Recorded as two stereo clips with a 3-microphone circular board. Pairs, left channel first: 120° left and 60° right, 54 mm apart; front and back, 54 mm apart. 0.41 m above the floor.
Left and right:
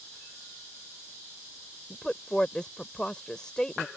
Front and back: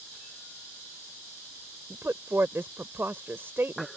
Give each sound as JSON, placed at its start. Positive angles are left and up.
{"t": 1.9, "sound": "a woman speaking", "azimuth_deg": -170}